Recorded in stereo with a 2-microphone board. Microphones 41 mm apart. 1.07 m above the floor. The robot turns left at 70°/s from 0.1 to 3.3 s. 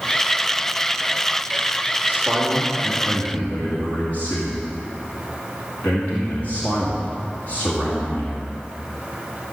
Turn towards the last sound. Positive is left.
turn(degrees=140)